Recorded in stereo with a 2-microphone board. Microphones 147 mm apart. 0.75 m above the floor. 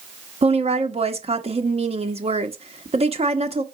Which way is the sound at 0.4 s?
40° right (ahead or behind).